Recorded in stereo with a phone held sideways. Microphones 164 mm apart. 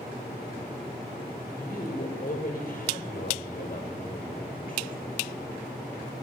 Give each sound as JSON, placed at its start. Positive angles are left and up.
{"t": 1.5, "sound": "a woman speaking", "side_deg": 60, "distance_m": 5.5}